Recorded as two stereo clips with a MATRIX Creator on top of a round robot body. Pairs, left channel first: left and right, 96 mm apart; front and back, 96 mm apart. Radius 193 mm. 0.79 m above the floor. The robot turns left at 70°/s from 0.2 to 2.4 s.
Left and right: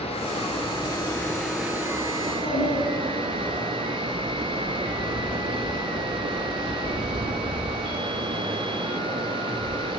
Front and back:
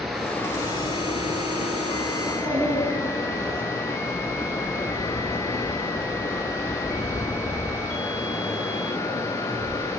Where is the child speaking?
135° left, 5 m; by 3.6 s 120° left, 5 m.